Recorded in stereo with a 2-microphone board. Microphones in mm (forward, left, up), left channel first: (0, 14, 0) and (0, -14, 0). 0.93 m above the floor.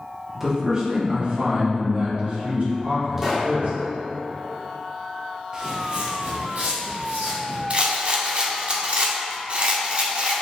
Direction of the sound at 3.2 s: 10° right (ahead or behind).